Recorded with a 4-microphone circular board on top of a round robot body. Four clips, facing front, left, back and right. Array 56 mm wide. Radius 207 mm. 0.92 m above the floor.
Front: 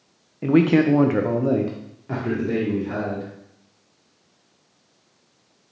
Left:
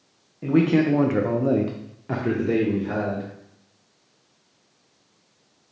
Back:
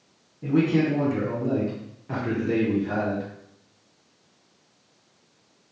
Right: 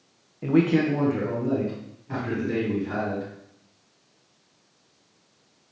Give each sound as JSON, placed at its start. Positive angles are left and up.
{"t": 0.4, "sound": "a man speaking", "azimuth_deg": -5, "distance_m": 0.7}